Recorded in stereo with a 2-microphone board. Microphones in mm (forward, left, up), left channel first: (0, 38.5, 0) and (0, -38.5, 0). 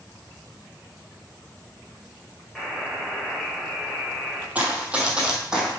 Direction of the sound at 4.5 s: 20° right (ahead or behind).